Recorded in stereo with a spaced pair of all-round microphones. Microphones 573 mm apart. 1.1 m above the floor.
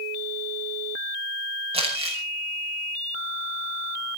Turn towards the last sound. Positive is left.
turn(degrees=-10)  # may be behind; listen again after turning